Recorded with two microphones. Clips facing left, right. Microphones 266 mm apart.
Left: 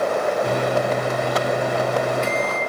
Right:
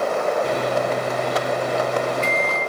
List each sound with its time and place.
0.4 s a microwave: 15° left (ahead or behind), 7 m